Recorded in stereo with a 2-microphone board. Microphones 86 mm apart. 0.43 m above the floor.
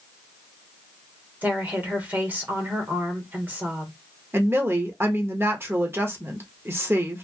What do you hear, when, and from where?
1.4 s a woman speaking: 20° right (ahead or behind), 1.1 m
4.3 s a woman speaking: 25° right (ahead or behind), 0.8 m